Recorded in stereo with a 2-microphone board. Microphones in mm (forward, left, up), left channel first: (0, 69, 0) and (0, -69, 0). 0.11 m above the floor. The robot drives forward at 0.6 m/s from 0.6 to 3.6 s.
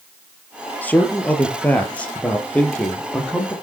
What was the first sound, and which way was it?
A man speaking, 10° left (ahead or behind).